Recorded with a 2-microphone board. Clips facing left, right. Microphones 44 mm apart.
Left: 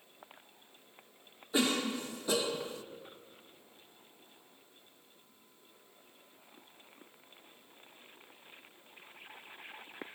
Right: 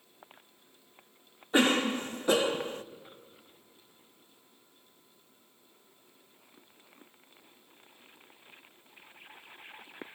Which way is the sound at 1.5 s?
45° right (ahead or behind).